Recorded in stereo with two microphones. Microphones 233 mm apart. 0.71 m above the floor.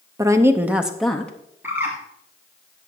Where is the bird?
10° right (ahead or behind), 2.5 m.